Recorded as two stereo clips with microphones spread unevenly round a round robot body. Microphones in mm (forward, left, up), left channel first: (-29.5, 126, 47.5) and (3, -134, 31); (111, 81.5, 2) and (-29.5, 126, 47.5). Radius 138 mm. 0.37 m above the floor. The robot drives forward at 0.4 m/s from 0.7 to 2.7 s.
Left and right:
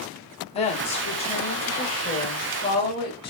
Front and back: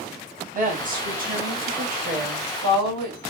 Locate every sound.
0.5 s a woman speaking: 155° left, 1.4 m; by 3.3 s 165° left, 1.9 m